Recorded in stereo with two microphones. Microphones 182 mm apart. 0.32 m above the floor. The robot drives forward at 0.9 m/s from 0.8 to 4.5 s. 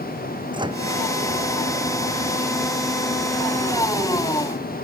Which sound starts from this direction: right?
A microwave, at 0.5 s.